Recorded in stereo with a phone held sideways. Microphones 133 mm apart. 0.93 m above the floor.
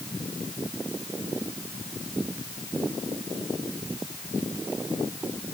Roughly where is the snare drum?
No snare drum in this recording.